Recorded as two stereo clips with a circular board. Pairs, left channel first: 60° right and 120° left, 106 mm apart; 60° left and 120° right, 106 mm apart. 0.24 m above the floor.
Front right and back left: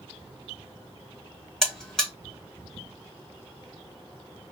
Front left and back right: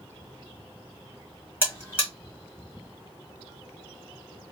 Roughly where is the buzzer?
Ahead.